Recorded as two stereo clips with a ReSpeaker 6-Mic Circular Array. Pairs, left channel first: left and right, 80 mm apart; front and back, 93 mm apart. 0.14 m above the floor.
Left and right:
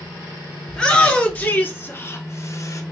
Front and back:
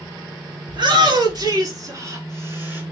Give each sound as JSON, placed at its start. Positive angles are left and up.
{"t": 0.7, "sound": "a shout", "azimuth_deg": 170, "distance_m": 1.8}